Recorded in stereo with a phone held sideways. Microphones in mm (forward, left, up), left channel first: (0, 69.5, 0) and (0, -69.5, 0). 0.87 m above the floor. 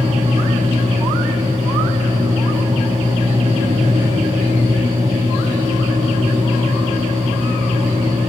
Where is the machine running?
45° right (ahead or behind), 4.5 m.